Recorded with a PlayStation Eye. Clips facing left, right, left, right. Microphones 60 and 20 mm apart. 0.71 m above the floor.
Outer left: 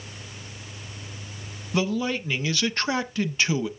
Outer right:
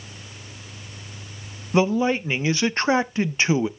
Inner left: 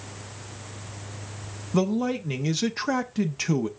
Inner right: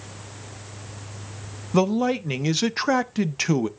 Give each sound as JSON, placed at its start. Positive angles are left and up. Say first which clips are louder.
{"t": 1.7, "sound": "a man speaking", "louder": "outer right 6 dB, inner right 4 dB", "side_deg": -25, "distance_m": 0.6}